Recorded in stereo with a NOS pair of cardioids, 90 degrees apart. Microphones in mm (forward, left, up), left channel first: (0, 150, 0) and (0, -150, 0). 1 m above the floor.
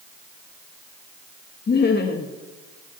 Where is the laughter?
35° left, 1.0 m.